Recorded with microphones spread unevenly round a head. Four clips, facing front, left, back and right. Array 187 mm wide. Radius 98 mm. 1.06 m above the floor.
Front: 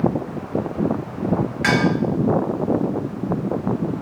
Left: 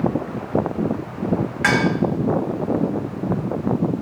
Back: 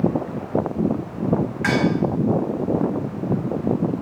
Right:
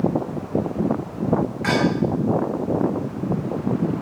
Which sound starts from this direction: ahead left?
Dishes clattering, at 1.6 s.